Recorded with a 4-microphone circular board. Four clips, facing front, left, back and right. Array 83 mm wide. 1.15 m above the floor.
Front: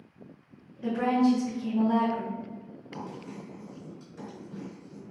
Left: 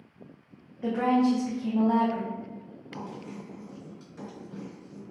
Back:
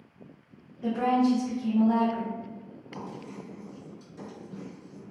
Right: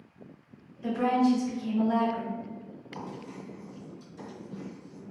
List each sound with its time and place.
0.8 s a woman speaking: 95° left, 0.5 m
2.9 s writing: 75° left, 1.6 m